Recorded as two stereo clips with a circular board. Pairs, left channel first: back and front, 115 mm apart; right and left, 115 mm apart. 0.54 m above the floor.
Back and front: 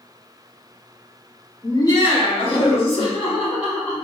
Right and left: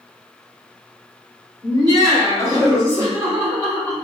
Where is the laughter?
125° left, 1.0 m; by 3.9 s 160° left, 2.5 m.